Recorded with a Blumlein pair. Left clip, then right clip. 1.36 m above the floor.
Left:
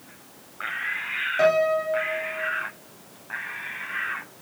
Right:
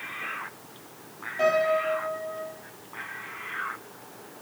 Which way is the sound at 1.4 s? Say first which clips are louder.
Left 2 dB; 25° left.